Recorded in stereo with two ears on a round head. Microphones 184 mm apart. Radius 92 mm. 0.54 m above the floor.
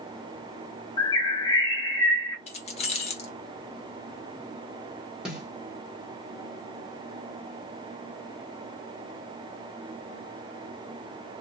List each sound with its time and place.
1.0 s a bird: 20° left (ahead or behind), 1.4 m
2.5 s keys jangling: 30° left (ahead or behind), 1.0 m
5.2 s a snare drum: 5° right (ahead or behind), 1.4 m